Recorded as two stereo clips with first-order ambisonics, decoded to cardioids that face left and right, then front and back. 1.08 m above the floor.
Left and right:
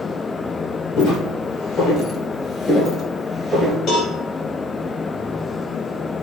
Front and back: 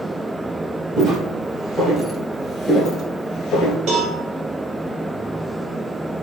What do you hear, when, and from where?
1.0 s footsteps: 120° left, 1.7 m; by 3.8 s 15° right, 1.1 m
3.9 s a cowbell: 140° left, 1.3 m